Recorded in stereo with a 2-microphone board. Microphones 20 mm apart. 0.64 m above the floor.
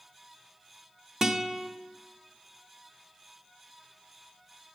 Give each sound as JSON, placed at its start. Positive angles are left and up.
{"t": 1.2, "sound": "a guitar", "side_deg": -30, "distance_m": 0.8}